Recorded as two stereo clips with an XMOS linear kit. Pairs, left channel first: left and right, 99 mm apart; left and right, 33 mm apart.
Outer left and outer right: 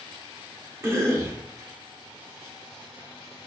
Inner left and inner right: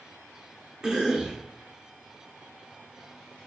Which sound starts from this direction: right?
A cough, at 0.8 s.